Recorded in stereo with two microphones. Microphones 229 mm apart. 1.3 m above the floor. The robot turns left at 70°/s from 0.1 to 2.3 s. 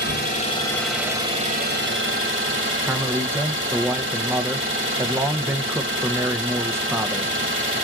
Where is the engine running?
55° left, 1.8 m; by 7.8 s 100° right, 1.8 m.